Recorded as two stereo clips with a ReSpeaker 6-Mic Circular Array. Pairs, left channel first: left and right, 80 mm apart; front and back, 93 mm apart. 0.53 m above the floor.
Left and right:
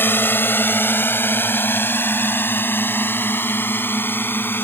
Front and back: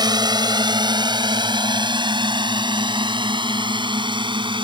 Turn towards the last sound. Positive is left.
turn(degrees=155)